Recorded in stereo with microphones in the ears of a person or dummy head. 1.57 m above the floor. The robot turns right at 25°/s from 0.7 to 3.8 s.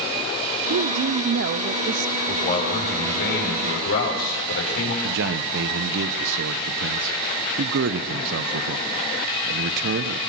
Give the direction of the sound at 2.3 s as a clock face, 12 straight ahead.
11 o'clock.